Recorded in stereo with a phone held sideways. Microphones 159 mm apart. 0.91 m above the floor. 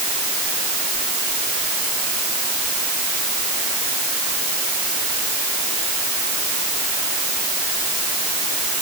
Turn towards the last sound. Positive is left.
No sound to turn to.